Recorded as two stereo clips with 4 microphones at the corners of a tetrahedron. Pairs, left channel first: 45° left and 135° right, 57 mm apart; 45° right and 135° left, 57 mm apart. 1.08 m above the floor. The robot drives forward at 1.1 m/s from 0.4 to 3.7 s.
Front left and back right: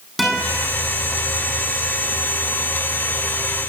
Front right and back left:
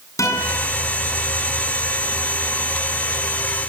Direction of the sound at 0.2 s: 50° right.